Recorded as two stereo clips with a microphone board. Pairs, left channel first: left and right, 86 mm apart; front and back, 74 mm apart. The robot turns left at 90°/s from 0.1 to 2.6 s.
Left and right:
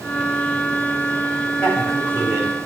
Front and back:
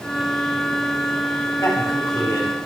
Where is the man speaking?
20° left, 3.5 m; by 2.6 s 65° right, 3.5 m.